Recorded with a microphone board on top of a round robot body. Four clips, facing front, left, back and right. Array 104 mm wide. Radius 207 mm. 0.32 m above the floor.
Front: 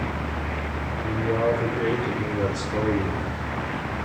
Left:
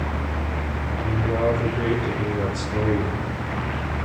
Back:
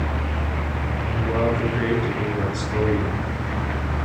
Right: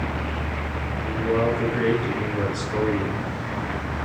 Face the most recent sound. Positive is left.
turn(degrees=-140)